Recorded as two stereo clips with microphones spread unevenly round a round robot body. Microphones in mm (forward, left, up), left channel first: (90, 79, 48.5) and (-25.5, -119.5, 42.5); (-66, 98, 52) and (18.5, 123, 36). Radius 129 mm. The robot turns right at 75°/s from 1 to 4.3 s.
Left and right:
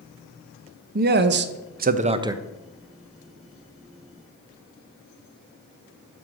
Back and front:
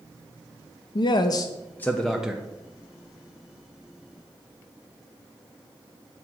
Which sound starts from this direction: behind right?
A man speaking, at 0.9 s.